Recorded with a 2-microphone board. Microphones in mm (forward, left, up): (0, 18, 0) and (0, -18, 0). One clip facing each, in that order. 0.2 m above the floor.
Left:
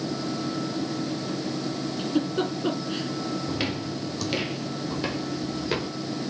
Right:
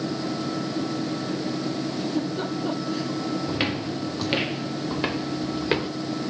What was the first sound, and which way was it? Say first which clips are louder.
A giggle: left 4 dB; 40° left (ahead or behind).